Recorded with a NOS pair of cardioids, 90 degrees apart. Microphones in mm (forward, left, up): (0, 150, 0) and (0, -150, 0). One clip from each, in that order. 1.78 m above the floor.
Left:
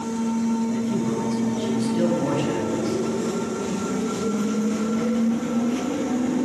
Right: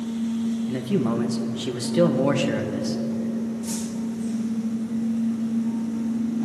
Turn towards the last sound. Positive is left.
turn(degrees=-45)